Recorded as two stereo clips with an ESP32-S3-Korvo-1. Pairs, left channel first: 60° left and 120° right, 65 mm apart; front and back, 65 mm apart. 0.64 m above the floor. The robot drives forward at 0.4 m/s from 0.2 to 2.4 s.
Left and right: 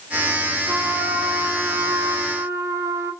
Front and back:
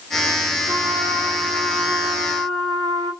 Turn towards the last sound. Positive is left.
turn(degrees=-160)